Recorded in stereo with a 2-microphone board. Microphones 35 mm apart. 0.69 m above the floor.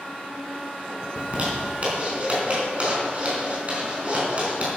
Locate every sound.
1.2 s a zipper: 40° right (ahead or behind), 4 m